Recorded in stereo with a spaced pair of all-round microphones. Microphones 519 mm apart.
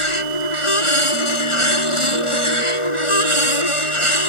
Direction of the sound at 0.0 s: 90° left.